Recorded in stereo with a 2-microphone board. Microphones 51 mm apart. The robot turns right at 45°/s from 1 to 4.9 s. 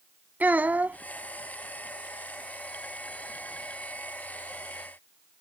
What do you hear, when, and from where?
0.4 s a child speaking: 35° right (ahead or behind)